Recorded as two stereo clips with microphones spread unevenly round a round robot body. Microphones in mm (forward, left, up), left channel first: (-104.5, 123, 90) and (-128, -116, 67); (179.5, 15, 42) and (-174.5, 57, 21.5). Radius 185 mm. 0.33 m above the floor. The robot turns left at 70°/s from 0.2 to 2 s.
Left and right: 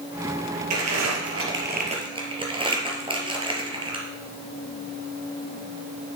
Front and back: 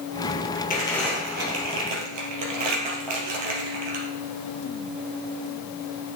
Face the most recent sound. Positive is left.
turn(degrees=-165)